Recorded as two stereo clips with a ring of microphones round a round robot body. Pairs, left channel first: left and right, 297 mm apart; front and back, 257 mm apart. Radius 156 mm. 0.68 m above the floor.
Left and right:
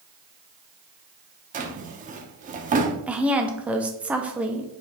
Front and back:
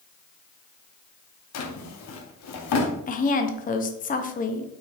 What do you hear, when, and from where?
1.5 s a drawer: 25° right, 0.7 m
3.1 s a woman speaking: 10° right, 0.6 m